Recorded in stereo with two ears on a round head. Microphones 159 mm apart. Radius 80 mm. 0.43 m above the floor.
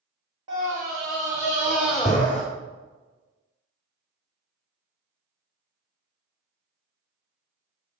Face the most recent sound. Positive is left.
turn(degrees=5)  # may be behind; listen again after turning